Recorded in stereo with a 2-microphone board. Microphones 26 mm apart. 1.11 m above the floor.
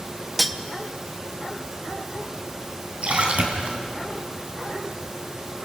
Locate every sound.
0.4 s cutlery clinking: centre (ahead or behind), 0.8 m
3.0 s a splash: 55° right (ahead or behind), 3.5 m